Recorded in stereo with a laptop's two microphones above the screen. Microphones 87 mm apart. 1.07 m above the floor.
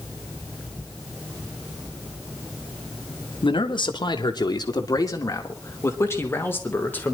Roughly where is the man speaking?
Left.